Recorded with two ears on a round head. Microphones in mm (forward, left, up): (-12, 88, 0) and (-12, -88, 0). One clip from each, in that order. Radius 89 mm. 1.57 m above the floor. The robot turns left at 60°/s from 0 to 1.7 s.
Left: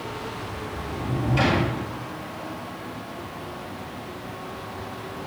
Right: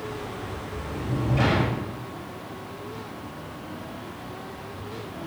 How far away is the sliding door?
About 10 m.